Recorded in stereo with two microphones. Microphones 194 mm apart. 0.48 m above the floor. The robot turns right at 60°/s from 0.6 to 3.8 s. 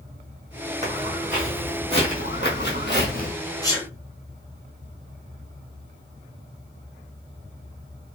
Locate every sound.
0.8 s footsteps: 35° right (ahead or behind), 1.9 m; by 3.3 s 40° left (ahead or behind), 0.7 m
3.6 s a sneeze: 20° left (ahead or behind), 0.8 m; by 3.9 s 15° left (ahead or behind), 0.8 m